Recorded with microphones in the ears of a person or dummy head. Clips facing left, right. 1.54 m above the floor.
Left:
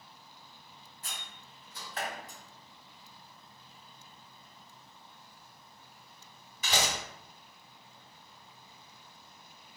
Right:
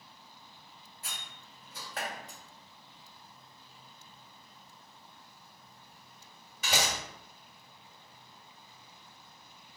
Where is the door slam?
45° right (ahead or behind), 1.6 m.